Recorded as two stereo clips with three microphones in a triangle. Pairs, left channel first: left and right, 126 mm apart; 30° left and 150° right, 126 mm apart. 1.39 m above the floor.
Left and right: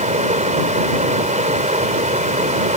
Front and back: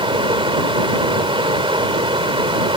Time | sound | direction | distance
0.0 | running water | 105° right | ?